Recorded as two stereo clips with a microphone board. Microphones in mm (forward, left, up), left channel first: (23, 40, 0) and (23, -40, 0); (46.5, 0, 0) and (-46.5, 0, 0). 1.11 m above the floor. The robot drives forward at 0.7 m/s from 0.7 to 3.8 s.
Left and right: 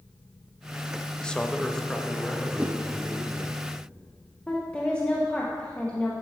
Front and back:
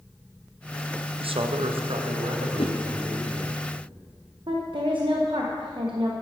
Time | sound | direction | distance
1.2 | a man speaking | 170° left | 0.5 m
2.6 | a whoosh | 15° right | 0.9 m
4.5 | a woman speaking | 165° left | 0.9 m